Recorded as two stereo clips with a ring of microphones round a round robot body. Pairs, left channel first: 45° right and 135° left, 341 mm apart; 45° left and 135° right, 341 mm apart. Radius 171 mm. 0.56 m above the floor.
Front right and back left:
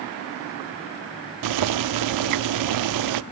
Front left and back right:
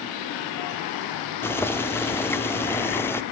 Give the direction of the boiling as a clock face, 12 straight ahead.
8 o'clock.